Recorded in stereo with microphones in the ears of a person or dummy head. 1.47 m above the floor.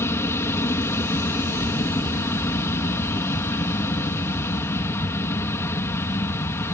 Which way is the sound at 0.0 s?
20° left (ahead or behind).